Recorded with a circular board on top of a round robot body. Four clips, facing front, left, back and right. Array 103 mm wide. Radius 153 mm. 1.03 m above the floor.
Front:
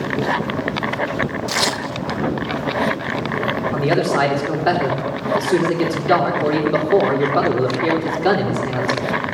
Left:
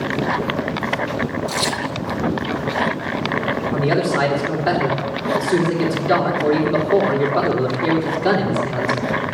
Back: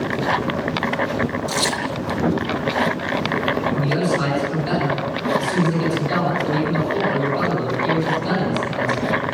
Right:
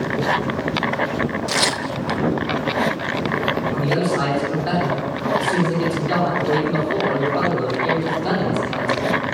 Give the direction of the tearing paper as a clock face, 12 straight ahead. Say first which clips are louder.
Even, even; 2 o'clock.